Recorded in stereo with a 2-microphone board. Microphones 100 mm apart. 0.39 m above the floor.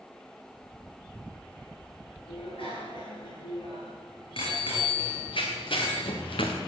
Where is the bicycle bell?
60° left (ahead or behind), 4.5 m.